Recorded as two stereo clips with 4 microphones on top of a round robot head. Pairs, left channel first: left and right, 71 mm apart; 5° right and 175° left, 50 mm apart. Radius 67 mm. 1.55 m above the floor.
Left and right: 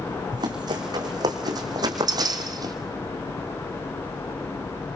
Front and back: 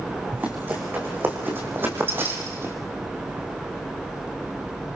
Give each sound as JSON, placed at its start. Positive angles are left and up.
{"t": 0.3, "sound": "running footsteps", "azimuth_deg": -120, "distance_m": 5.5}